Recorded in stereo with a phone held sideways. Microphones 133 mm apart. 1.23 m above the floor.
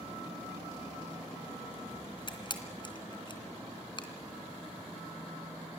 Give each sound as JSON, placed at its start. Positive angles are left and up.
{"t": 2.3, "sound": "a camera shutter", "side_deg": 35, "distance_m": 2.5}